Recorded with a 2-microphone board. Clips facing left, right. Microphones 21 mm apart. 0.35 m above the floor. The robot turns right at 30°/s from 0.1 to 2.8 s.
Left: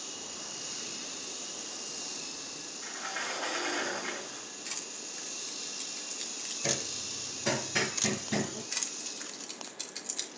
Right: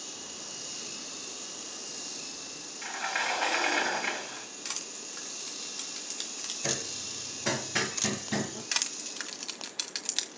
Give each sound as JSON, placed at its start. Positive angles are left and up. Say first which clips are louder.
{"t": 2.8, "sound": "a sliding door", "louder": "right 6 dB", "side_deg": -55, "distance_m": 2.5}
{"t": 4.7, "sound": "crushing", "louder": "right 2 dB", "side_deg": -50, "distance_m": 4.0}
{"t": 6.6, "sound": "hammering", "louder": "left 1 dB", "side_deg": -15, "distance_m": 2.0}
{"t": 8.7, "sound": "crushing", "louder": "right 5 dB", "side_deg": -65, "distance_m": 1.7}